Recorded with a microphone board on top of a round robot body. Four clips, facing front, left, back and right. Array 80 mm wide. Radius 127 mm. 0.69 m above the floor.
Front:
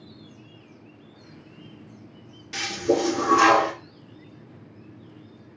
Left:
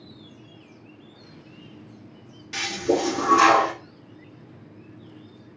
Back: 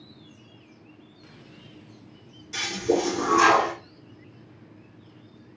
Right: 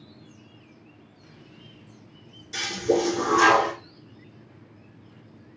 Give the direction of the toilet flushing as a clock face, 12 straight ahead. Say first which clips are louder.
Even, front 1 dB; 10 o'clock.